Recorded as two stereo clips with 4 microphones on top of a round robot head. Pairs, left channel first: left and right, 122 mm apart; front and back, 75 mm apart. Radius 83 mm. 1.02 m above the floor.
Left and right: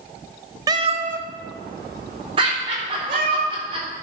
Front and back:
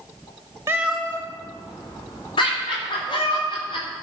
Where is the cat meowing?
130° right, 0.5 m; by 3.4 s 55° right, 2.5 m.